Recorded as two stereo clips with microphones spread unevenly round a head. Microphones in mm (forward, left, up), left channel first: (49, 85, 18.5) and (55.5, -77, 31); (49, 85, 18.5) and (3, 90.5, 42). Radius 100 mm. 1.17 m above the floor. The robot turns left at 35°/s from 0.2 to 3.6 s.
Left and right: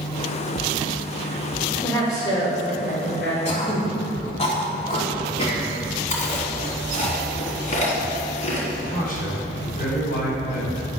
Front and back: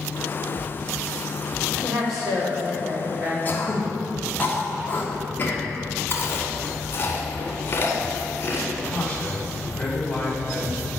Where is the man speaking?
60° left, 3 m.